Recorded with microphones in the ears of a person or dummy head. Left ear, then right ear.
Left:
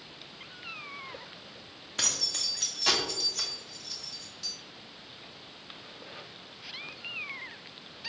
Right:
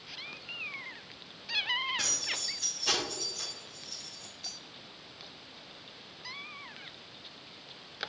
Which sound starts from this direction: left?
Keys jangling, at 2.0 s.